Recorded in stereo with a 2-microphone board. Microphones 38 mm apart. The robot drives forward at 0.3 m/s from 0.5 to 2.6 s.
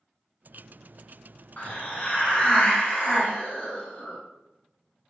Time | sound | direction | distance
1.6 | a hiss | 45° left (ahead or behind) | 0.7 m